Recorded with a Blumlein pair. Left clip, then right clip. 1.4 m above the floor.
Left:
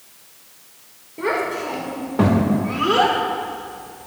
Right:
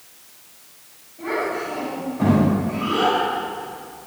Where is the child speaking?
50° left, 4 m; by 4.1 s 25° left, 3 m.